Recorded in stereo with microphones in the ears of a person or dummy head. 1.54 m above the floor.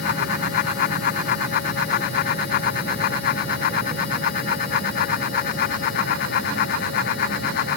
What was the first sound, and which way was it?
Only background noise.